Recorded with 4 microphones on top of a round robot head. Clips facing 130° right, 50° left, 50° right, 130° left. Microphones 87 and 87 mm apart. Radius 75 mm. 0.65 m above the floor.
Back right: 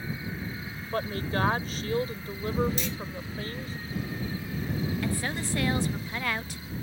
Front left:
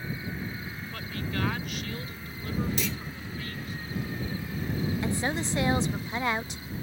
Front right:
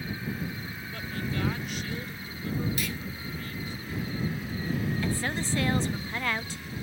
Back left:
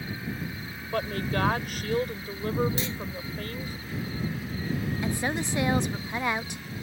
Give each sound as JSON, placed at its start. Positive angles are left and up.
{"t": 0.9, "sound": "a woman speaking", "azimuth_deg": 175}
{"t": 2.8, "sound": "a clunk", "azimuth_deg": 65}
{"t": 5.0, "sound": "a woman speaking", "azimuth_deg": 85}